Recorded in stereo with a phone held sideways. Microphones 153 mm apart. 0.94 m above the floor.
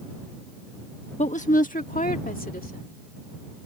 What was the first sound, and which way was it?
A woman speaking, 50° left (ahead or behind).